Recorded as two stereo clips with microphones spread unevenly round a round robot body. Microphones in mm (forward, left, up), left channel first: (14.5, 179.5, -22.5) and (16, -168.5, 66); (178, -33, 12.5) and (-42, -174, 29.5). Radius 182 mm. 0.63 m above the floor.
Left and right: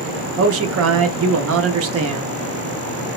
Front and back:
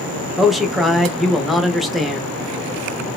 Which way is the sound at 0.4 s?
50° right.